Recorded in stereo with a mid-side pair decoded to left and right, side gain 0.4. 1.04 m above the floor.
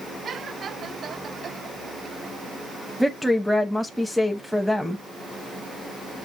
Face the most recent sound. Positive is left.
turn(degrees=5)